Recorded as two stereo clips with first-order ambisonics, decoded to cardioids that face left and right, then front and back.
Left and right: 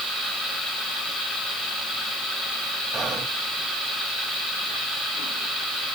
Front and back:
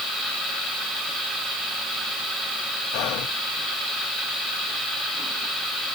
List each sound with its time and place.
2.9 s whispering: 10° right, 0.7 m